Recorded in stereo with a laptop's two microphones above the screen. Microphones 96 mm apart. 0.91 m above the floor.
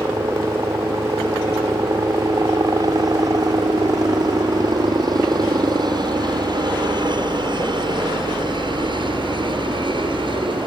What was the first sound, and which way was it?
A helicopter, 35° right (ahead or behind).